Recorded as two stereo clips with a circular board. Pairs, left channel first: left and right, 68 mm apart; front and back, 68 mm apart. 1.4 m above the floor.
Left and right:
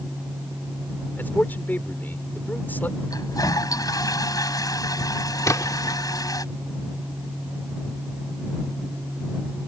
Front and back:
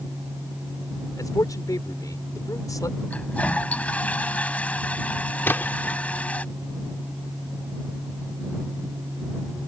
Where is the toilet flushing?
70° left.